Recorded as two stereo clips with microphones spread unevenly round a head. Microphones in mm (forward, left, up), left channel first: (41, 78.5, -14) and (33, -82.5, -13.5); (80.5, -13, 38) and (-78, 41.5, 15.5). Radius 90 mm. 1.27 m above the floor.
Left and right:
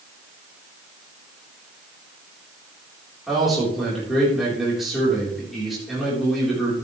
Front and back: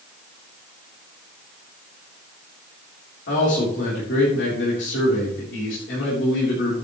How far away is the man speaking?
About 4 m.